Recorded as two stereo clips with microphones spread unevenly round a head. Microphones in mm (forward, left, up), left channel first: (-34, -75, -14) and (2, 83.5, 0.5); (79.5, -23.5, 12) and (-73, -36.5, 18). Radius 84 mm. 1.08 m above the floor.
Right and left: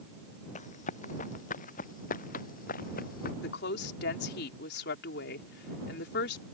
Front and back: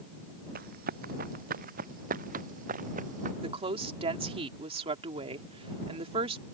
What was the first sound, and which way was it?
Running footsteps, 150° right.